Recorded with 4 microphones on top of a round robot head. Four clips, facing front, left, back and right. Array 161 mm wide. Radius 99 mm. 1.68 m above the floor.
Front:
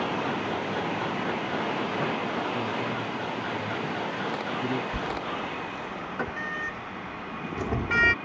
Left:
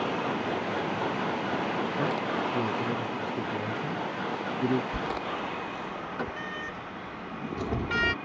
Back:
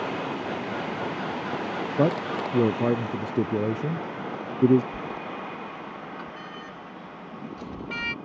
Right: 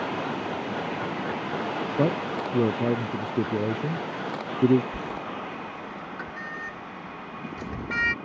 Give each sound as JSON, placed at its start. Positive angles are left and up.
{"t": 2.0, "sound": "a man speaking", "azimuth_deg": -150}
{"t": 4.9, "sound": "a sliding door", "azimuth_deg": 35}